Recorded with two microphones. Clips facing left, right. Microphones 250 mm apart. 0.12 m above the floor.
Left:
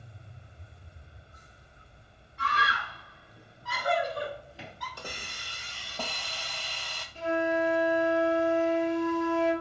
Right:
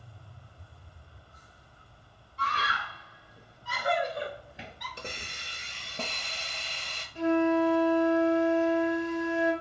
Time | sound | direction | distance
2.4 | a scream | 40° right (ahead or behind) | 1.9 m
5.0 | a hiss | 25° right (ahead or behind) | 0.6 m
7.2 | a flute | 20° right (ahead or behind) | 1.8 m